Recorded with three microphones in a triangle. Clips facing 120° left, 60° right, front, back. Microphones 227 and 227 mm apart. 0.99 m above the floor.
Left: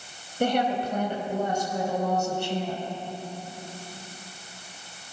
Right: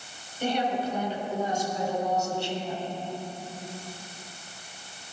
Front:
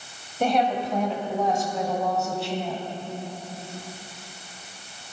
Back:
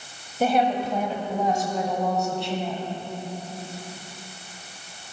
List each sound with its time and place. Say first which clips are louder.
0.4 s a woman speaking: left 3 dB, back 1 dB; 95° left, 5 m; by 2.8 s 85° left, 6.5 m